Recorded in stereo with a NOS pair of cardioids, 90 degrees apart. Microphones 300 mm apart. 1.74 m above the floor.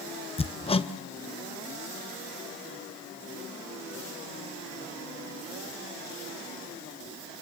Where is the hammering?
20° left, 1.2 m.